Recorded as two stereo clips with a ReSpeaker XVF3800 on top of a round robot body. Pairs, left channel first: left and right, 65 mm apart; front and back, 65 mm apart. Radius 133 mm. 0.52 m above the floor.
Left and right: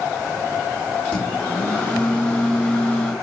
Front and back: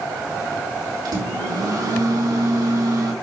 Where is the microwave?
160° left, 4 m.